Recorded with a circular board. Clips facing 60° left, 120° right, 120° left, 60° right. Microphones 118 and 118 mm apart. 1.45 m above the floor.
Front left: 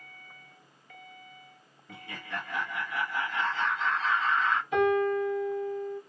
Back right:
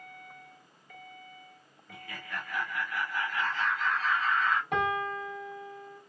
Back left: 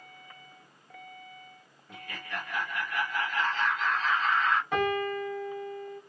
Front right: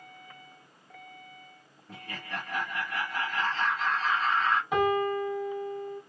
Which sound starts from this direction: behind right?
A piano, at 4.7 s.